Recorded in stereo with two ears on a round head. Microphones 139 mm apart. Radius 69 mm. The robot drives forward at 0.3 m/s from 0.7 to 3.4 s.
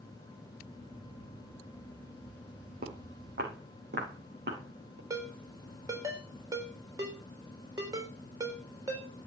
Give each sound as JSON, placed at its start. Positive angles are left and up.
{"t": 2.8, "sound": "footsteps", "side_deg": -60, "distance_m": 4.0}
{"t": 5.1, "sound": "a ringtone", "side_deg": -20, "distance_m": 4.0}